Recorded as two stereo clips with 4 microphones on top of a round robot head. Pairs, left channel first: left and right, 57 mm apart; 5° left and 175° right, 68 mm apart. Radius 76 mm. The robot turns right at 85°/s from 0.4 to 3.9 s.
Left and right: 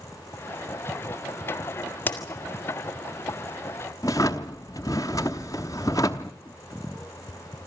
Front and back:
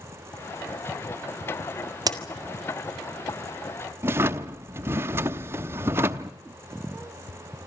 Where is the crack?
155° left, 2 m; by 2.2 s 165° left, 2 m.